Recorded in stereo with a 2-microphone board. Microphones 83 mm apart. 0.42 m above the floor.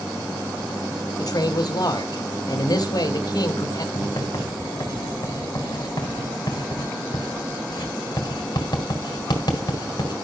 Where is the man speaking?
50° left (ahead or behind), 2 m.